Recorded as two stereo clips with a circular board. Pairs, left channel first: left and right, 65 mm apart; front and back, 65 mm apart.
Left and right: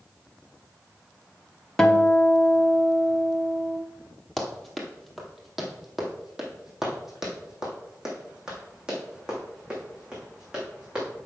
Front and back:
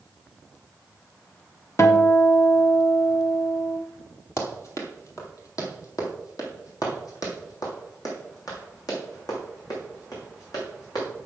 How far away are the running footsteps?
About 1.7 m.